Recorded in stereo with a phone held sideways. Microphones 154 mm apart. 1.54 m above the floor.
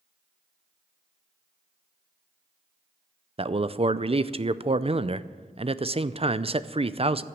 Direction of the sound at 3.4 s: 40° right (ahead or behind).